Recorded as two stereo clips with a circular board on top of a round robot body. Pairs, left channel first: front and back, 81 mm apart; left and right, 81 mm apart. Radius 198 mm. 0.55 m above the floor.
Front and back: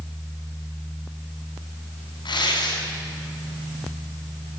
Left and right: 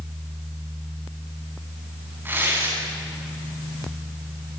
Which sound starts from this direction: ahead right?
Tearing paper, at 2.2 s.